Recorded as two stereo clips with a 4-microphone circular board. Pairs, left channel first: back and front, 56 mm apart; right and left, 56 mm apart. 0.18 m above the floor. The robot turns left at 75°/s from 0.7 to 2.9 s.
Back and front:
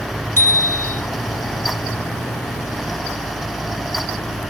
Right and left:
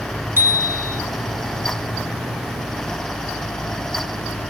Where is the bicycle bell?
130° left, 4.5 m; by 1.0 s 110° left, 4.5 m.